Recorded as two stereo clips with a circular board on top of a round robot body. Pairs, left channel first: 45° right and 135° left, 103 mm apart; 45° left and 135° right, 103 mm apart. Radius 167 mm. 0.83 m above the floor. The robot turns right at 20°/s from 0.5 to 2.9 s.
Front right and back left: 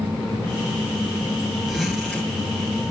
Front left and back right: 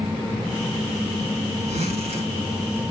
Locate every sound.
1.7 s a zipper: 140° right, 3 m; by 2.3 s 125° right, 3 m